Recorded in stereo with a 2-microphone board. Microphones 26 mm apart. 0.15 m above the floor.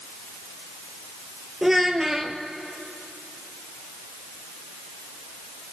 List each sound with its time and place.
1.6 s a child speaking: 10° right (ahead or behind), 1.9 m